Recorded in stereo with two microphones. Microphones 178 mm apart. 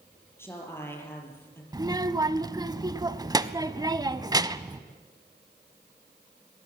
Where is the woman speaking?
15° left (ahead or behind), 5 m.